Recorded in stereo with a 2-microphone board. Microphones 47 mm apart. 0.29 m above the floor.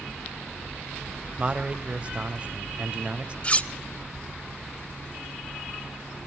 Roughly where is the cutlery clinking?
Left.